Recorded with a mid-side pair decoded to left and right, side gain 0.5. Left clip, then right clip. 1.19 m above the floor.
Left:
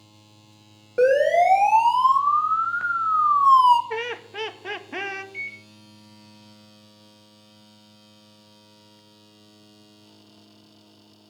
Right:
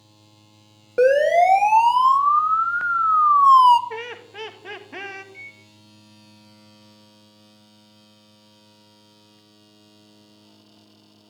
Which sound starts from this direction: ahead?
Laughter, at 3.9 s.